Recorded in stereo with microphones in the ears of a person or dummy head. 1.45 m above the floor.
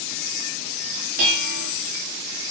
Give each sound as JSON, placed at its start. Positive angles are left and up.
{"t": 1.2, "sound": "dishes clattering", "side_deg": -55, "distance_m": 1.6}